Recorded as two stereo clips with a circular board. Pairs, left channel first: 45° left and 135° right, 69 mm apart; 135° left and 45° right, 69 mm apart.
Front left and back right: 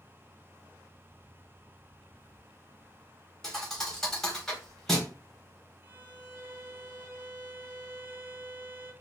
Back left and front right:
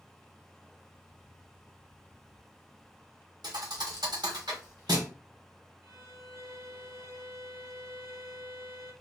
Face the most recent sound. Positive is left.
turn(degrees=-80)